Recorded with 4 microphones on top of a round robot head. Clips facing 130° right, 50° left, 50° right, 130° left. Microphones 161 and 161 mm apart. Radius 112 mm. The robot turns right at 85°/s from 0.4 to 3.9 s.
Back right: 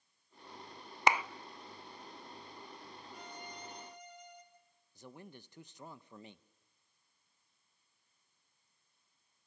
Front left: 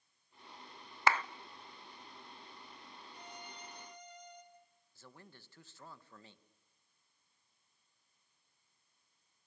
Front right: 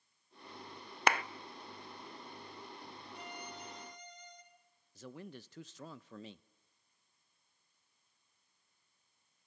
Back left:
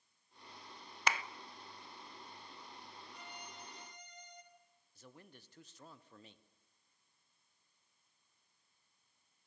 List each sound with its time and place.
1.1 s a clap: 65° right, 0.6 m; by 1.2 s 50° right, 0.6 m
3.1 s a violin: 110° right, 3.5 m; by 4.4 s 45° right, 3.5 m
5.0 s a man speaking: 60° right, 1.0 m